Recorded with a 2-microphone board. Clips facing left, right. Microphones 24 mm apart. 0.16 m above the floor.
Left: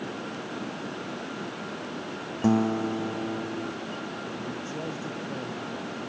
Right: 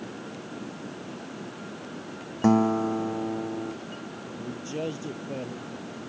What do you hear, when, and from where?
2.4 s a guitar: 15° right (ahead or behind)
4.4 s a man speaking: 30° right (ahead or behind)